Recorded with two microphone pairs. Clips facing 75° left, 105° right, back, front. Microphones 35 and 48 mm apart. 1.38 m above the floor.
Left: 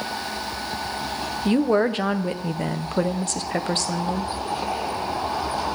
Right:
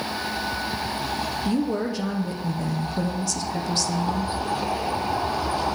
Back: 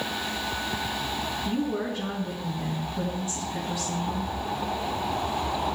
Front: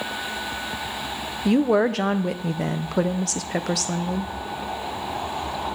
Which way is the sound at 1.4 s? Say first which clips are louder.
Left 7 dB, front 12 dB; 25° left.